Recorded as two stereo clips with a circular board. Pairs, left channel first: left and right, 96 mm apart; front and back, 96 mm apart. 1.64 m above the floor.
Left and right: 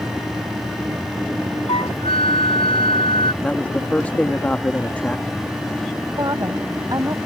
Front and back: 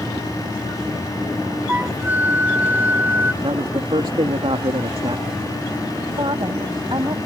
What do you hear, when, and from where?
1.7 s a flute: 110° left
3.4 s a man speaking: 160° left
6.2 s a woman speaking: 140° right